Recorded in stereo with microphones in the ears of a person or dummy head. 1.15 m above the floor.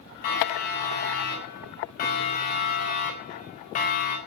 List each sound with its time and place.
0.2 s a siren: 45° left (ahead or behind), 7 m; by 4.2 s 40° left (ahead or behind), 3.5 m